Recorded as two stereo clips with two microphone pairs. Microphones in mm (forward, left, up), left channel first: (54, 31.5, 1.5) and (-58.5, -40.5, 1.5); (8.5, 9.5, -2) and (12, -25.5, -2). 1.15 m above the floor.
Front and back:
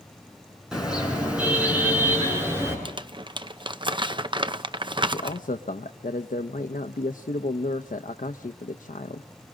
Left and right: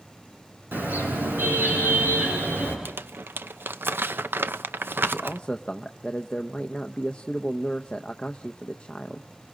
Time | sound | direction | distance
0.7 | a car horn | 60° right | 7 m
2.9 | crumpling | 95° right | 0.5 m
5.1 | a man speaking | 30° left | 0.7 m